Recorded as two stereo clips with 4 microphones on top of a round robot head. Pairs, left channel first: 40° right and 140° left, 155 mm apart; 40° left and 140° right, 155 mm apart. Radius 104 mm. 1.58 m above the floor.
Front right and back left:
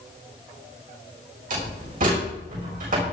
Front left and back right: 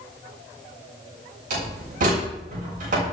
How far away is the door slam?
About 7 m.